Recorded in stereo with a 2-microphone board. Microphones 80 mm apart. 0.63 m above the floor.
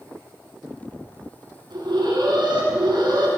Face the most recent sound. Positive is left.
turn(degrees=-65)  # may be behind; listen again after turning